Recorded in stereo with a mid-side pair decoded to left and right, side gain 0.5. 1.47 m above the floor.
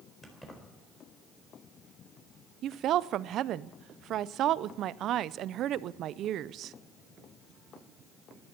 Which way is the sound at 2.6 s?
65° right.